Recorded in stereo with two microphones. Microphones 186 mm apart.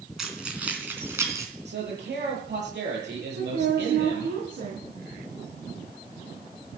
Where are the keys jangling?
Centre (ahead or behind), 3.5 m; by 1.4 s 15° right (ahead or behind), 3.5 m.